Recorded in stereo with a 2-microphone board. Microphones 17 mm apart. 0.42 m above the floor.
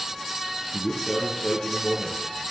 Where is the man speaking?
55° left (ahead or behind), 6.5 m.